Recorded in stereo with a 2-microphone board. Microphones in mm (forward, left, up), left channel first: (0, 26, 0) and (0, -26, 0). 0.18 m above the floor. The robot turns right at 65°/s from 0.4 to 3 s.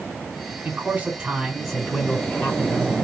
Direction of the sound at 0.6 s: 80° right.